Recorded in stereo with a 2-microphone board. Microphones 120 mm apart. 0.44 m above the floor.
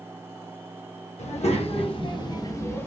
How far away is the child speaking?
About 1.1 m.